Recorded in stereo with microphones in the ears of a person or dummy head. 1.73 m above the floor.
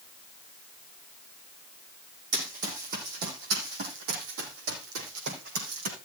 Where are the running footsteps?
35° right (ahead or behind), 4.5 m; by 6.0 s 70° right (ahead or behind), 6 m.